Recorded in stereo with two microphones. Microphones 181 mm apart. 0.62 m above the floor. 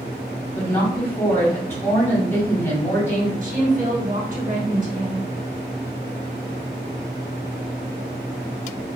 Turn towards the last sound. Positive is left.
turn(degrees=-45)  # may be behind; listen again after turning